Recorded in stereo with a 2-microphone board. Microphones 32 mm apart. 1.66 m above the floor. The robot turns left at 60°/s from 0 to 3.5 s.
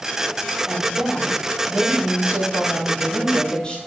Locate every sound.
0.7 s a woman speaking: 30° right, 9 m; by 3.8 s 160° left, 9 m